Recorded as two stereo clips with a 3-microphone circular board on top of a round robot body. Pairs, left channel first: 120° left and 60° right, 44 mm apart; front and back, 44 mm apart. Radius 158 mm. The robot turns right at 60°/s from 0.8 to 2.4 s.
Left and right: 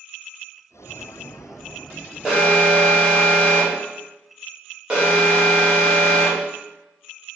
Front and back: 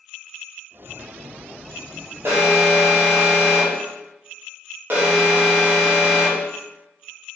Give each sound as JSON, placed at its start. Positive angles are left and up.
{"t": 2.2, "sound": "an alarm", "azimuth_deg": -140, "distance_m": 1.3}